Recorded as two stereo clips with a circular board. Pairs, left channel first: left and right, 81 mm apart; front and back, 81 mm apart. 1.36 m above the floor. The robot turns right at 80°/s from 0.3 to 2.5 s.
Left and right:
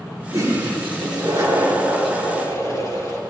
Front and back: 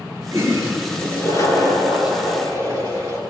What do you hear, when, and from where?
0.3 s a toilet flushing: 135° right, 9 m; by 3.2 s 40° left, 9 m